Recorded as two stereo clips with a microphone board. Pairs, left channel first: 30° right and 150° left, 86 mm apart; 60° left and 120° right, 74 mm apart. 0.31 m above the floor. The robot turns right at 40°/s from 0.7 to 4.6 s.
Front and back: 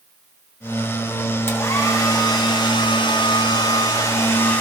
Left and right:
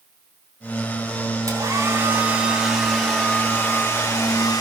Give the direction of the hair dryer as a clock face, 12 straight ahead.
3 o'clock.